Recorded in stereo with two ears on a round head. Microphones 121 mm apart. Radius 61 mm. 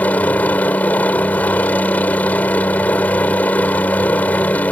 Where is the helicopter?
10° left (ahead or behind).